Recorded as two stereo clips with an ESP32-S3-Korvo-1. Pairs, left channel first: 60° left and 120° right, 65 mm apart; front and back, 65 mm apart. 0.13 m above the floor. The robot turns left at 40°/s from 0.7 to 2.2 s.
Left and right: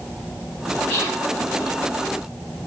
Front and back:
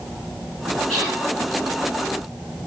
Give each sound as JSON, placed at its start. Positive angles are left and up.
{"t": 0.9, "sound": "whispering", "azimuth_deg": 85, "distance_m": 1.9}